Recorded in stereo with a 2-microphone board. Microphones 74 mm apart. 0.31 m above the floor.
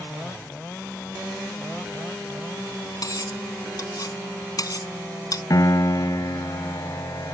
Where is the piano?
55° left (ahead or behind).